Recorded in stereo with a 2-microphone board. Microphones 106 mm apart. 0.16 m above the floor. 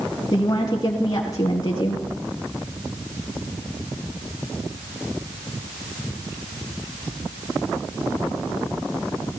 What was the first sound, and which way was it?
A woman speaking, 40° left (ahead or behind).